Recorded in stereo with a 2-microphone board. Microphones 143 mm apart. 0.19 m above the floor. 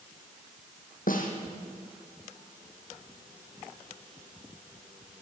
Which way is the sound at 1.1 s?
75° left (ahead or behind).